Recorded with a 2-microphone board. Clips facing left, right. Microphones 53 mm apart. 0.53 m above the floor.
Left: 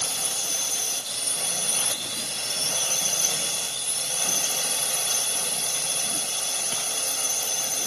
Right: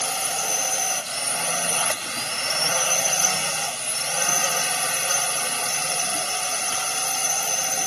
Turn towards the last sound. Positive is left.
turn(degrees=-55)  # may be behind; listen again after turning